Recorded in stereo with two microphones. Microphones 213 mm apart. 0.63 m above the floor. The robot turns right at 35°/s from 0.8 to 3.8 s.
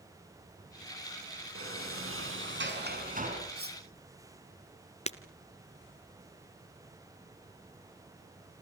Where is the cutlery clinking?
55° right (ahead or behind), 3 m; by 3.8 s 45° right (ahead or behind), 3 m.